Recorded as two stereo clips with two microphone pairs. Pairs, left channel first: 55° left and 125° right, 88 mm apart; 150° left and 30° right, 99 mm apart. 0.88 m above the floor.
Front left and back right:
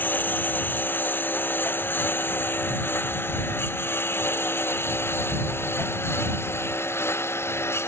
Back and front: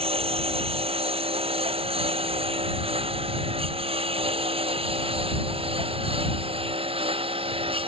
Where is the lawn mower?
15° right; by 7.9 s 5° right.